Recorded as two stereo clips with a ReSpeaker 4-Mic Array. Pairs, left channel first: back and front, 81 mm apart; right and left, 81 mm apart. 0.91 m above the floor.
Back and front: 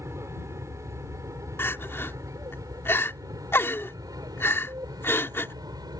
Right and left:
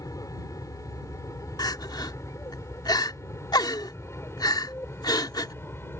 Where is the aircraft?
50° right; by 6.0 s 30° right.